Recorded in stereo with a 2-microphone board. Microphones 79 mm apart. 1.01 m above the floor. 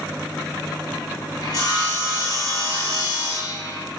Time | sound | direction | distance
1.4 | sawing | 50° left (ahead or behind) | 1.3 m